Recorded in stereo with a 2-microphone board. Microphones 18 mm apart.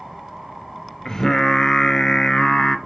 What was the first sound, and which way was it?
Singing, 30° left (ahead or behind).